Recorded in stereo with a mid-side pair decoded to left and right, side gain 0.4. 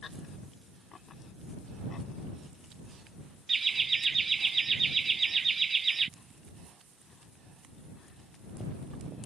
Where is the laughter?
35° right.